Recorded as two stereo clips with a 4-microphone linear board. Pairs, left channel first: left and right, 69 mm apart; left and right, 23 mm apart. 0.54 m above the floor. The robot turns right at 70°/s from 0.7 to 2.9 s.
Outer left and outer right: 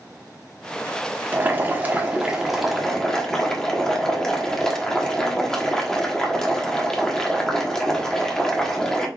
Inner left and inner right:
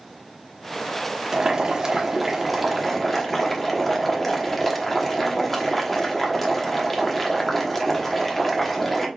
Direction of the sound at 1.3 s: 30° right (ahead or behind).